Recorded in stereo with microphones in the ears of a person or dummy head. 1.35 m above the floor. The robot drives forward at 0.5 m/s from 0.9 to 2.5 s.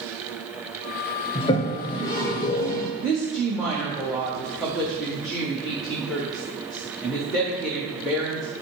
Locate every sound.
1.4 s a toilet flushing: 30° left (ahead or behind), 0.5 m; by 2.9 s 15° left (ahead or behind), 1.0 m
3.0 s a woman speaking: centre (ahead or behind), 0.9 m